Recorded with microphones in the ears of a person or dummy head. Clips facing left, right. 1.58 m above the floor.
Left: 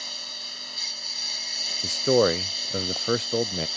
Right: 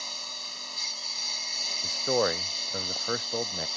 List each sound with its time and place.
0.0 s a lawn mower: 10° left (ahead or behind)
1.8 s a man speaking: 40° left (ahead or behind)